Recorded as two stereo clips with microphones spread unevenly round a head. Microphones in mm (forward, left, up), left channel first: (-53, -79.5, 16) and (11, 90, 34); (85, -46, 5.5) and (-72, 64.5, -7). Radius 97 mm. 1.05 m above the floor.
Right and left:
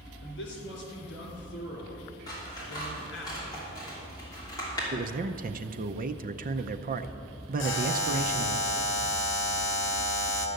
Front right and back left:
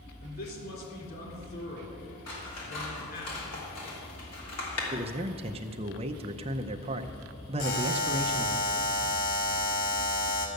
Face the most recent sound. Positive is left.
turn(degrees=-80)